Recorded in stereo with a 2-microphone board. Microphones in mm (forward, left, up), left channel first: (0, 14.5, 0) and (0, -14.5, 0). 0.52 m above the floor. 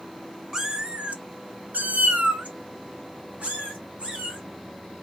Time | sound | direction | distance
0.5 | a cat meowing | 20° right (ahead or behind) | 0.7 m